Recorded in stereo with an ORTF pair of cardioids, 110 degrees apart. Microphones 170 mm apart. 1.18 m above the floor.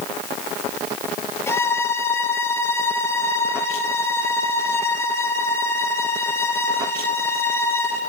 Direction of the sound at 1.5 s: 15° left.